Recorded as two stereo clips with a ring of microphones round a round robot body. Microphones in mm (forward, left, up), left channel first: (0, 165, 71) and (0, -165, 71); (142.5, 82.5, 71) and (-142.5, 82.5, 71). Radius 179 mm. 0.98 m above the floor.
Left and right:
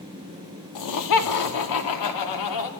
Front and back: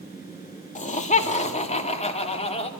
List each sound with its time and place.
0.8 s laughter: 65° left, 2.5 m; by 2.7 s 70° left, 3.5 m